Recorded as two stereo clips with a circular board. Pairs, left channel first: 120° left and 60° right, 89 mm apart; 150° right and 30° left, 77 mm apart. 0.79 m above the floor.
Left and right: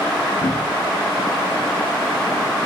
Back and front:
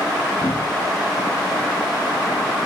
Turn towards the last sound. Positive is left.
turn(degrees=95)